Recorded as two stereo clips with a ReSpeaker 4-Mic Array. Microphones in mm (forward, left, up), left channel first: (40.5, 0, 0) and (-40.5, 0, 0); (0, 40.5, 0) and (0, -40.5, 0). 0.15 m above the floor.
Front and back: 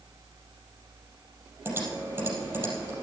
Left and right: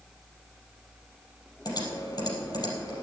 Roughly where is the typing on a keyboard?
Behind left.